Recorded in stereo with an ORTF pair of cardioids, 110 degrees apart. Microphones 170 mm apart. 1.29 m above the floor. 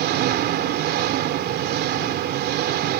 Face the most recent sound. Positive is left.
turn(degrees=-70)